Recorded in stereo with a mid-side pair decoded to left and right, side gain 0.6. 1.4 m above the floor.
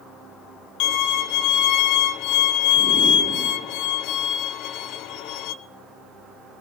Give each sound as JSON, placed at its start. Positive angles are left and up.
{"t": 0.8, "sound": "a violin", "azimuth_deg": 65, "distance_m": 0.6}